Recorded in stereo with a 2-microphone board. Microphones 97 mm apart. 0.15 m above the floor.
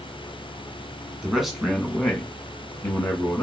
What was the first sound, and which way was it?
A man speaking, 5° right (ahead or behind).